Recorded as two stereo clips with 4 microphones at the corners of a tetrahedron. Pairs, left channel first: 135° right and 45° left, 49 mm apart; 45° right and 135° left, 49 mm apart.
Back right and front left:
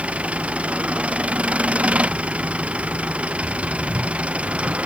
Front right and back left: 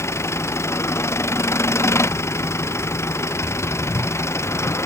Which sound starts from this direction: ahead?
An engine running, at 0.0 s.